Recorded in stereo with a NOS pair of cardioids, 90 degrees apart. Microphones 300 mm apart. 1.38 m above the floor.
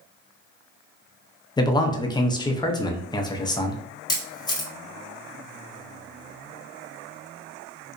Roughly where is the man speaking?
Ahead.